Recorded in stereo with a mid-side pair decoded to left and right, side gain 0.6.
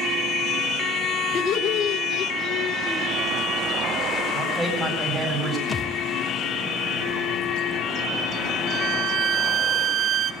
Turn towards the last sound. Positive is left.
turn(degrees=-55)